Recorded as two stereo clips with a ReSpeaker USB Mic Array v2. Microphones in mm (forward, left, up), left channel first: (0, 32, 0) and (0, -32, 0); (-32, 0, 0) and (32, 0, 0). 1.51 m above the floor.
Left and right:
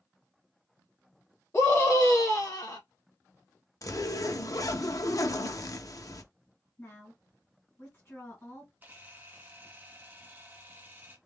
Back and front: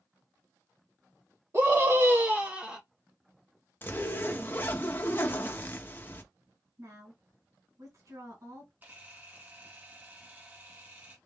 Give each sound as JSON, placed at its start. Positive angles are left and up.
{"t": 1.5, "sound": "a scream", "azimuth_deg": 35, "distance_m": 2.0}
{"t": 3.8, "sound": "a zipper", "azimuth_deg": 125, "distance_m": 0.7}
{"t": 6.8, "sound": "a woman speaking", "azimuth_deg": 40, "distance_m": 2.5}
{"t": 8.8, "sound": "a camera shutter", "azimuth_deg": -45, "distance_m": 1.7}